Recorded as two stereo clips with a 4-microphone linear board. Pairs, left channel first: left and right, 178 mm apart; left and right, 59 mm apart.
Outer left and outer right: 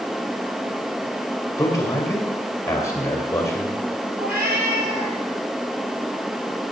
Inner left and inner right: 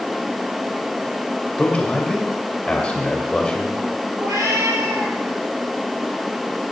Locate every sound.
1.6 s a man speaking: 15° left (ahead or behind), 2.5 m
4.2 s a cat meowing: 60° right (ahead or behind), 2.5 m